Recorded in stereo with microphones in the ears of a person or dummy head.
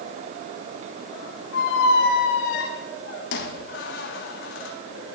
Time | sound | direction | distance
1.5 | a squeak | 60° left (ahead or behind) | 1.4 m